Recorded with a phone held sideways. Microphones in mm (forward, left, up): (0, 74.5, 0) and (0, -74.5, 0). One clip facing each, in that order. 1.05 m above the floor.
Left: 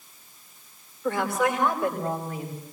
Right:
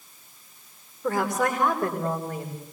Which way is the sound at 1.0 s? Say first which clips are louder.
Even; 40° right (ahead or behind).